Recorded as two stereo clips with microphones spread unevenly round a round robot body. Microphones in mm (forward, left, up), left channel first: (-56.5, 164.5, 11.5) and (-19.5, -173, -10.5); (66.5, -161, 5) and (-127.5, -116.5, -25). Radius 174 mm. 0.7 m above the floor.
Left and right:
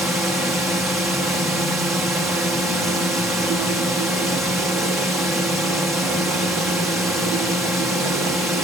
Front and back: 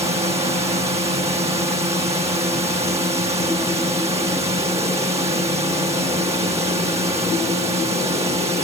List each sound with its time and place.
0.0 s a drone: 165° right